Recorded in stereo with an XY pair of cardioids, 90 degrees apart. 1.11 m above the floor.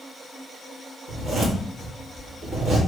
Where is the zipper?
70° right, 1.5 m.